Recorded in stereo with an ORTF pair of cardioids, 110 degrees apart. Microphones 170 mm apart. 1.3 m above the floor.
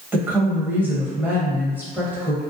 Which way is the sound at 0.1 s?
10° right.